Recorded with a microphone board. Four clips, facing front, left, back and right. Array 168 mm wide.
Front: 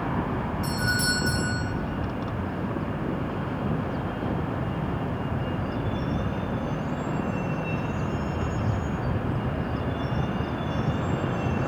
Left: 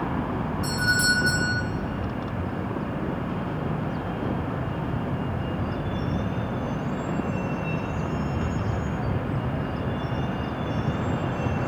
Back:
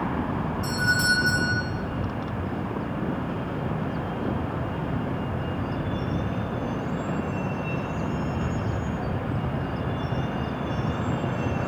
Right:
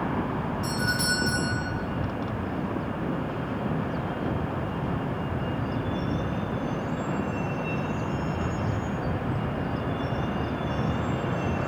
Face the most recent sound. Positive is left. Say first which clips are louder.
# left 6 dB, back 4 dB
turn(degrees=95)